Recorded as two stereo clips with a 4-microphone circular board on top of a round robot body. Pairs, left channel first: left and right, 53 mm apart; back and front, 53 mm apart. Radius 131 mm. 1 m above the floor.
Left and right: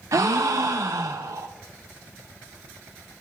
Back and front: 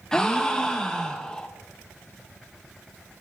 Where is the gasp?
105° right, 0.6 m.